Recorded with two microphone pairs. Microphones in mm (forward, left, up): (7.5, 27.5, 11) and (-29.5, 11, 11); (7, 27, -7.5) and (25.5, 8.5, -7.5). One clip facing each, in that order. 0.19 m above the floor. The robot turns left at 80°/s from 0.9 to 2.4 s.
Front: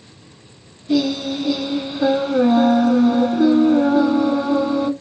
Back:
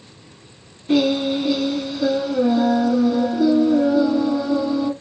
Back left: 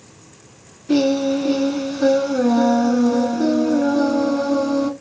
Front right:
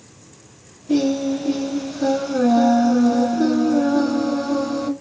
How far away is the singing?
About 0.8 m.